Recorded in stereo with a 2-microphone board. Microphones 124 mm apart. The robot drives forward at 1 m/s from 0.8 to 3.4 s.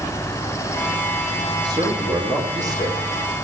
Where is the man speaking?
40° right (ahead or behind), 5 m; by 3.1 s 30° right (ahead or behind), 6 m.